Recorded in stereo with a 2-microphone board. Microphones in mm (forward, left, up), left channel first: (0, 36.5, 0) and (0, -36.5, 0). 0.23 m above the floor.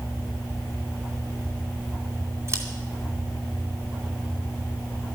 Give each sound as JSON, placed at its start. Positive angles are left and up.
{"t": 2.5, "sound": "scissors", "side_deg": -40, "distance_m": 2.5}